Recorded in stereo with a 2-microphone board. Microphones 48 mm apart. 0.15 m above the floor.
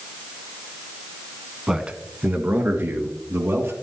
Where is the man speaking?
15° right (ahead or behind), 1.2 m; by 3.7 s 60° right (ahead or behind), 3 m.